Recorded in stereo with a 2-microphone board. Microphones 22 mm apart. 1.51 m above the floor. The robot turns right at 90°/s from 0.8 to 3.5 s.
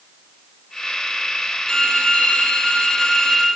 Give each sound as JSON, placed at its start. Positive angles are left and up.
{"t": 1.7, "sound": "a violin", "azimuth_deg": 25, "distance_m": 8.0}